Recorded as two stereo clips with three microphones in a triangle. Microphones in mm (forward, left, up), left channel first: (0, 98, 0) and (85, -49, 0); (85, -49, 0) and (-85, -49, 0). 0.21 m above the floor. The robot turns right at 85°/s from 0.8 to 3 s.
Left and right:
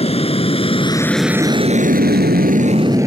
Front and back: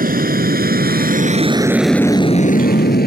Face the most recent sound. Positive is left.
turn(degrees=10)